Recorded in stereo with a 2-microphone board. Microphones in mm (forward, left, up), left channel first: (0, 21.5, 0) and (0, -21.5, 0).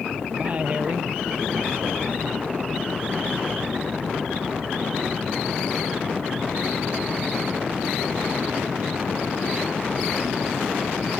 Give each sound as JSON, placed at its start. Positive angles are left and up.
{"t": 0.3, "sound": "a man speaking", "side_deg": -35}